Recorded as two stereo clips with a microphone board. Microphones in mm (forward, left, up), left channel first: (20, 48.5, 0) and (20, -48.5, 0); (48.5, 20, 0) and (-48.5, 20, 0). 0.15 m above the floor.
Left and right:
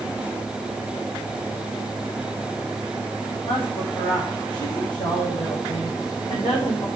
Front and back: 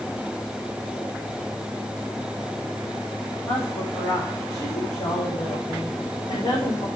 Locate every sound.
3.5 s a woman speaking: 50° left, 8.5 m